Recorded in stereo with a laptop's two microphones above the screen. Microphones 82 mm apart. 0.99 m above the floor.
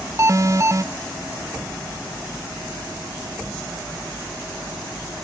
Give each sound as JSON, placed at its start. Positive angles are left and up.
{"t": 0.2, "sound": "an alarm", "side_deg": -35, "distance_m": 0.5}